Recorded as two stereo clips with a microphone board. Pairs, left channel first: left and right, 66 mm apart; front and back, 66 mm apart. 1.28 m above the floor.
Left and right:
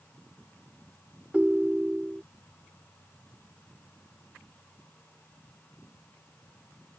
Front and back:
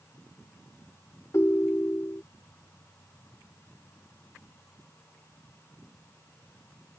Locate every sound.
1.3 s a ringtone: 30° right